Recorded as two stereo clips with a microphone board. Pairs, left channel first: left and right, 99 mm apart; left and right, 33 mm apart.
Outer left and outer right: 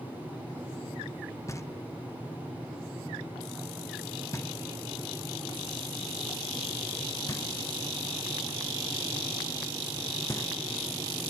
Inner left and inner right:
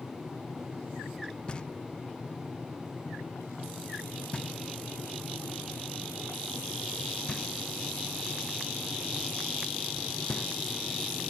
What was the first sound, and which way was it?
Knocking, 30° left (ahead or behind).